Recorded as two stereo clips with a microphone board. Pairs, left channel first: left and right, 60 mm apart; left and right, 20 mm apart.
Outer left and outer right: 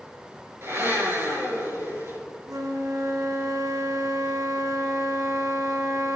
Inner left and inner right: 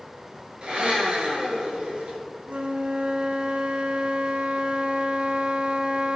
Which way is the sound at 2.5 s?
80° right.